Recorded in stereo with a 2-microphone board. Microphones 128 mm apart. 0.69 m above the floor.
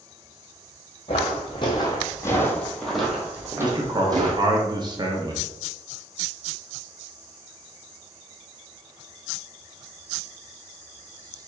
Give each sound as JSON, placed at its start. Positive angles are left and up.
{"t": 1.1, "sound": "footsteps", "side_deg": 50, "distance_m": 1.4}
{"t": 3.6, "sound": "a man speaking", "side_deg": -35, "distance_m": 0.9}